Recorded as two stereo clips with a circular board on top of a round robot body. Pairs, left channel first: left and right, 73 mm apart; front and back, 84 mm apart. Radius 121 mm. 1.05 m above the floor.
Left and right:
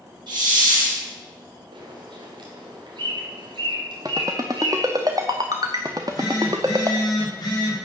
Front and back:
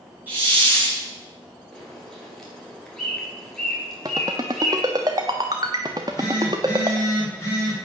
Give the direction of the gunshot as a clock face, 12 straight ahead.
No gunshot in this recording.